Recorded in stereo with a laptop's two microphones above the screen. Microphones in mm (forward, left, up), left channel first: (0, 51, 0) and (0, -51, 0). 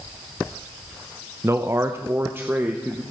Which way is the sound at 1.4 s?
25° right (ahead or behind).